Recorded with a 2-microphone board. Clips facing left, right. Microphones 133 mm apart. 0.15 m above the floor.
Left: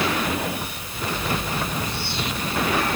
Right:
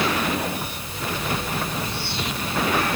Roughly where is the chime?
I don't hear a chime.